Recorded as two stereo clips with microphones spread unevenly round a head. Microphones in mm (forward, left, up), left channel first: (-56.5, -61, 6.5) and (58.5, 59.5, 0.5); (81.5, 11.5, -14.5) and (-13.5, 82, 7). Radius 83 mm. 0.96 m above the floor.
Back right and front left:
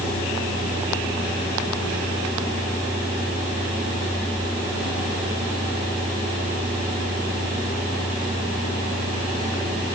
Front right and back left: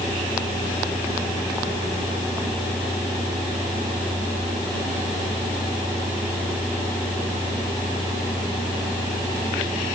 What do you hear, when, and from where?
Only background noise.